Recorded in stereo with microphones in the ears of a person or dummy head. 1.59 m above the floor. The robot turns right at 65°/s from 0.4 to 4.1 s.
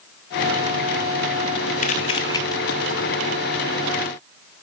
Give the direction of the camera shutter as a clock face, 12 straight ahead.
8 o'clock.